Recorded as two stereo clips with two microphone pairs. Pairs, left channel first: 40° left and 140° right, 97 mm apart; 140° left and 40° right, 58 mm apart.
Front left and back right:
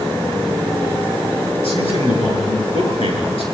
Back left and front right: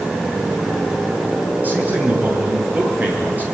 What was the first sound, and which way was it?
A man speaking, 20° left.